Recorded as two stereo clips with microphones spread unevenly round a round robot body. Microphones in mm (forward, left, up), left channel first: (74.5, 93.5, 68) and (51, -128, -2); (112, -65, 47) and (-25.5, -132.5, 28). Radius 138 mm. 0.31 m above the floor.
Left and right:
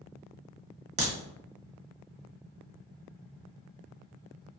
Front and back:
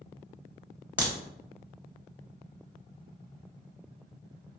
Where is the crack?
85° right, 1.0 m.